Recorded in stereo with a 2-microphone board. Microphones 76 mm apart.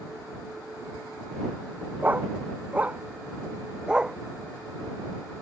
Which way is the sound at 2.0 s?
25° right (ahead or behind).